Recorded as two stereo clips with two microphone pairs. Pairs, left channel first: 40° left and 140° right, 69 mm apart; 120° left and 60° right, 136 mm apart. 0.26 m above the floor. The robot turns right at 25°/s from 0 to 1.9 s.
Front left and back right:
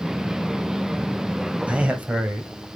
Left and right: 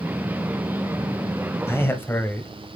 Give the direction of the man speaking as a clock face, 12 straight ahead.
6 o'clock.